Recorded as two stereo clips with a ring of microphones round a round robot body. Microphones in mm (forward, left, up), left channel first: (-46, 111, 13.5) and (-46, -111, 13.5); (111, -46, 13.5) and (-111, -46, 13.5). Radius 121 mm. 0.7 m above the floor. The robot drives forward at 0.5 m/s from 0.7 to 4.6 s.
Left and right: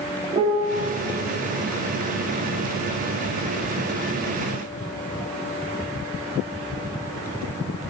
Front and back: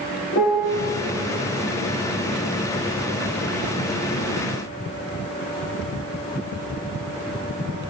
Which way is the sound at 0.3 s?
25° right.